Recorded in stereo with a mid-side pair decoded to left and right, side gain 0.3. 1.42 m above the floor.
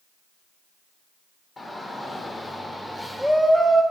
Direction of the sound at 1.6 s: 45° left.